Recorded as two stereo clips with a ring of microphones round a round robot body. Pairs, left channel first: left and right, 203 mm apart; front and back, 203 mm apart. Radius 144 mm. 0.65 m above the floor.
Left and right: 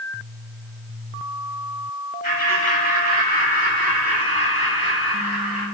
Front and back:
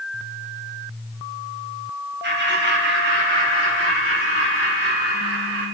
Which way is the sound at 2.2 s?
150° left.